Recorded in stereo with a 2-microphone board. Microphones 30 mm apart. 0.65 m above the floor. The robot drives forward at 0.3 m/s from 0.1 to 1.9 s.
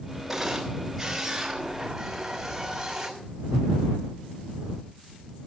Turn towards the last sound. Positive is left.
turn(degrees=-5)  # may be behind; listen again after turning